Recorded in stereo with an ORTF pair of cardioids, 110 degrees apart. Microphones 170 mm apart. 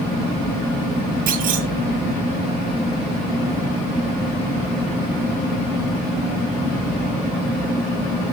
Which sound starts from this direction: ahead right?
A clunk, at 1.3 s.